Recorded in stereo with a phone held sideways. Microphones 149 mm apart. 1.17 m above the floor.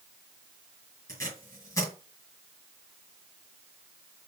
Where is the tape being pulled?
25° left (ahead or behind), 4 m.